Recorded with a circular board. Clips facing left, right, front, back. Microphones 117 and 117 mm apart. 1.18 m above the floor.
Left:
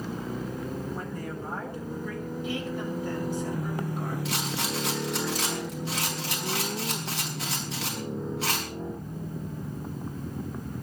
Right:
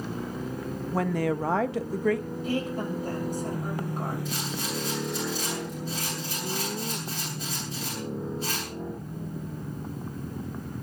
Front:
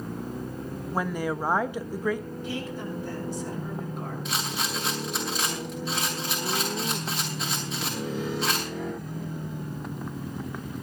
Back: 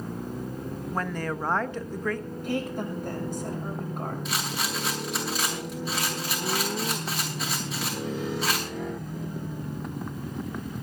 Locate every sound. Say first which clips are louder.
0.9 s a woman speaking: right 9 dB, front 3 dB; 80° right, 1.2 m
2.4 s a woman speaking: right 4 dB, back 6 dB; 140° right, 7 m
4.2 s a rattle: left 1 dB, even; 90° left, 6.5 m